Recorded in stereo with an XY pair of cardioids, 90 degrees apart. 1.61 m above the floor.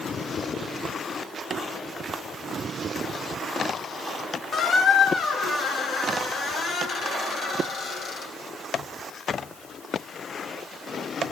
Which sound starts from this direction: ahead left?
A squeak, at 4.5 s.